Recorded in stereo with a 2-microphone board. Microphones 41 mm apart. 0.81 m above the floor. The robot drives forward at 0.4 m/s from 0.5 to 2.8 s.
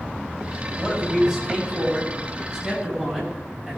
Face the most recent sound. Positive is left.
turn(degrees=-15)  # may be behind; listen again after turning